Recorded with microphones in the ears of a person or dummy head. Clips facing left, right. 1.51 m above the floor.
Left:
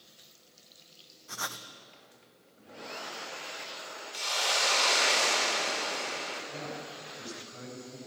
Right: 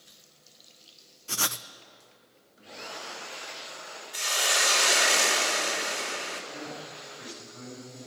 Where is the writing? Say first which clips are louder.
Right 5 dB; 45° right (ahead or behind), 0.7 m.